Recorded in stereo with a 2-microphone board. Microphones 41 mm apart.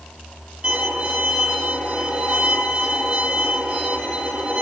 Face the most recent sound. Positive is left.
turn(degrees=-35)  # may be behind; listen again after turning